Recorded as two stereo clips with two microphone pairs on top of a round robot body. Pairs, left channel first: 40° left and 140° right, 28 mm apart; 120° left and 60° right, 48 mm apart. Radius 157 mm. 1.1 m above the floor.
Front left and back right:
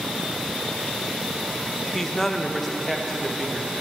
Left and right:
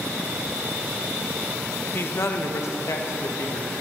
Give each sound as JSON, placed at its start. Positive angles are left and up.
{"t": 1.9, "sound": "a man speaking", "azimuth_deg": 130, "distance_m": 0.7}